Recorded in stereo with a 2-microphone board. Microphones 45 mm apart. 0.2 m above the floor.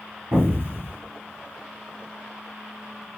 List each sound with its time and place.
0.3 s an explosion: 65° right (ahead or behind), 3 m